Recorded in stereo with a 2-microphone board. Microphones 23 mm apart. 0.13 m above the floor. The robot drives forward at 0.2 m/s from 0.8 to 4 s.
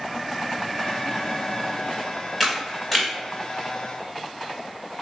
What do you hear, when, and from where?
2.4 s a camera shutter: 5° right (ahead or behind), 1.2 m